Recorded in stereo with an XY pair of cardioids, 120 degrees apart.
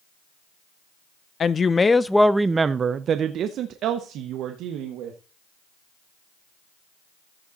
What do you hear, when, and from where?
1.4 s a woman speaking: 40° left, 0.7 m; by 5.2 s 80° right, 1.6 m